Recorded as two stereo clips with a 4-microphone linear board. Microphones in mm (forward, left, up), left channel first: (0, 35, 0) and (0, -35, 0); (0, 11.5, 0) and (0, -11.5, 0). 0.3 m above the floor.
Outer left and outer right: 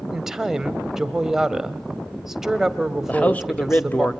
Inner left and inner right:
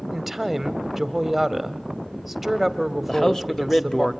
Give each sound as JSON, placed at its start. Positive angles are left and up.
{"t": 0.1, "sound": "a woman speaking", "side_deg": -5, "distance_m": 1.2}
{"t": 3.1, "sound": "a man speaking", "side_deg": 20, "distance_m": 0.9}